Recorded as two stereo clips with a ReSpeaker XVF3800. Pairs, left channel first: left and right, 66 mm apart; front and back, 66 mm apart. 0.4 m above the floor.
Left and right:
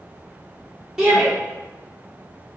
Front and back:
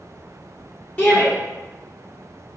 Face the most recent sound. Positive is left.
turn(degrees=-15)